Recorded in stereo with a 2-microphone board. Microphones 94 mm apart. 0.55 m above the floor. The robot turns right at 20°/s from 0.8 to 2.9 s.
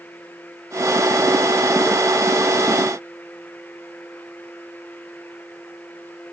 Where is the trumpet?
I don't hear a trumpet.